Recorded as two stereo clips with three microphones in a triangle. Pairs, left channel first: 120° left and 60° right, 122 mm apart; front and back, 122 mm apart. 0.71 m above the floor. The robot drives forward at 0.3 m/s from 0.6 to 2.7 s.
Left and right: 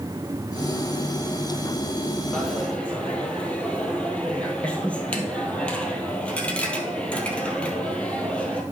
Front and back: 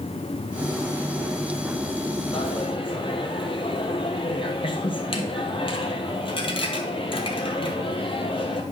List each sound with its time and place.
2.3 s a dropped coin: 40° left, 1.7 m